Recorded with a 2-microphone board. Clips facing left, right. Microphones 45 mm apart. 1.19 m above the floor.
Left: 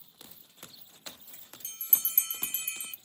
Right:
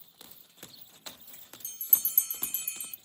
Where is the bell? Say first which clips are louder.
Left 3 dB; 40° left (ahead or behind), 0.6 m.